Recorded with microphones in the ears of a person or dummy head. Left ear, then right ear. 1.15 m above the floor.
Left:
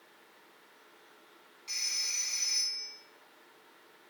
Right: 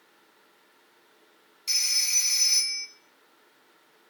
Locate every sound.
1.7 s a phone ringing: 35° right (ahead or behind), 1.9 m